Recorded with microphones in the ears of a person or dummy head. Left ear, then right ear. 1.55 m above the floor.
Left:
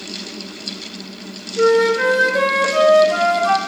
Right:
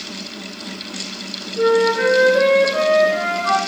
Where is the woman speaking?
No woman speaking in this recording.